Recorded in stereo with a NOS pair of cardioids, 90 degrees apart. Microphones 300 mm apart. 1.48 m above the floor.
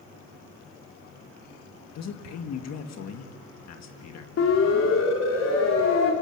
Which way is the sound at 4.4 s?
55° left.